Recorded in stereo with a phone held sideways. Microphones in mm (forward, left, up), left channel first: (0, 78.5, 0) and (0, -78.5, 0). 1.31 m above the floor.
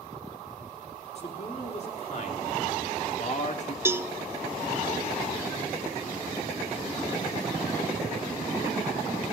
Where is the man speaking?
45° left (ahead or behind), 3.5 m.